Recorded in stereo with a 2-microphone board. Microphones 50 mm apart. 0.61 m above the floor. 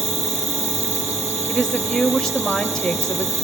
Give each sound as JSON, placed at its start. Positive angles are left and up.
{"t": 0.0, "sound": "an insect", "side_deg": -60, "distance_m": 3.5}
{"t": 1.5, "sound": "a woman speaking", "side_deg": 15, "distance_m": 2.0}